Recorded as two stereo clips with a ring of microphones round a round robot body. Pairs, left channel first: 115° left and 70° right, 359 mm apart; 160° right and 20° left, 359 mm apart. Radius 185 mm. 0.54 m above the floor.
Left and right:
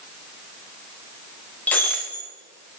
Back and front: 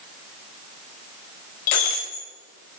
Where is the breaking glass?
160° right, 3 m.